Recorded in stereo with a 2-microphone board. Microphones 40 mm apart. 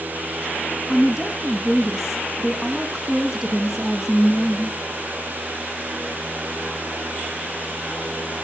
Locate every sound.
0.9 s a woman speaking: 10° right (ahead or behind), 1.2 m